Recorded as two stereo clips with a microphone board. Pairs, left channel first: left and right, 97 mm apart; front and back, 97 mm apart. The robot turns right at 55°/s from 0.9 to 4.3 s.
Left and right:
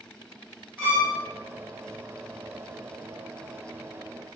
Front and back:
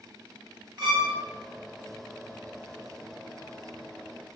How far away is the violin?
About 1.1 m.